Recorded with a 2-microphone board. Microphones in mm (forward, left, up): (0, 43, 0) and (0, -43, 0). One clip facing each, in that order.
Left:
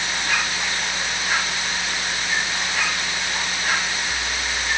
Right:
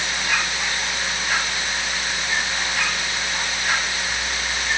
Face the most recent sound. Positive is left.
No sound to turn to.